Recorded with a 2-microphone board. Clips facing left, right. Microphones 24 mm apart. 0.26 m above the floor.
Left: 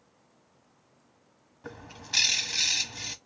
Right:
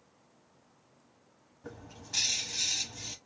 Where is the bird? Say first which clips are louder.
Left 6 dB; 40° left (ahead or behind), 0.8 m.